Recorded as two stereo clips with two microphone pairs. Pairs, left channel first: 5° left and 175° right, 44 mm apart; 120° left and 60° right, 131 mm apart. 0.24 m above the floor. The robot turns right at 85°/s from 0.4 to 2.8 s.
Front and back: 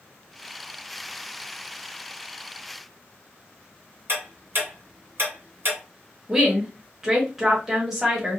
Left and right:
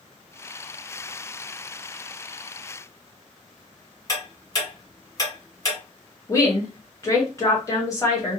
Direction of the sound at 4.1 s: 175° left.